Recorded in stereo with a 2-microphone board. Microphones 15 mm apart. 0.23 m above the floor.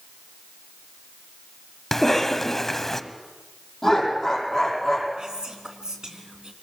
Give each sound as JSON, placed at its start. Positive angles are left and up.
{"t": 1.9, "sound": "a cough", "side_deg": 30, "distance_m": 1.1}
{"t": 3.8, "sound": "laughter", "side_deg": 5, "distance_m": 8.0}
{"t": 5.2, "sound": "whispering", "side_deg": -60, "distance_m": 2.5}